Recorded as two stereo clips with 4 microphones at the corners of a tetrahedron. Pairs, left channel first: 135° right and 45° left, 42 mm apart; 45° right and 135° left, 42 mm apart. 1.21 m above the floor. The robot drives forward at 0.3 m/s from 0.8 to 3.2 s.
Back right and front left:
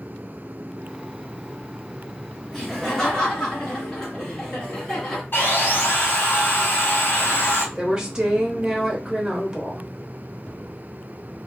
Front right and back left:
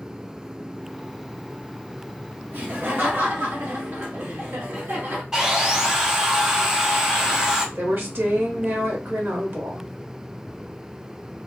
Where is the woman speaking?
120° left, 0.8 m.